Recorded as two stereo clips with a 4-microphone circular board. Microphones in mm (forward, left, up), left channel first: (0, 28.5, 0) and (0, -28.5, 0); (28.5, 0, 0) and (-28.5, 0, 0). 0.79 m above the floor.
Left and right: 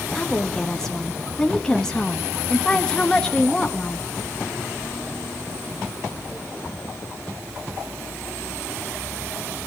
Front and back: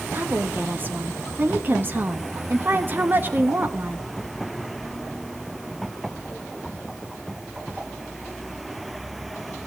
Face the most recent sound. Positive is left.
turn(degrees=160)